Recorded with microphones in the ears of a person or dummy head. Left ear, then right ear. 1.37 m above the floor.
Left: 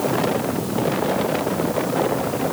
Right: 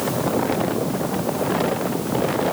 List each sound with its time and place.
Only background noise.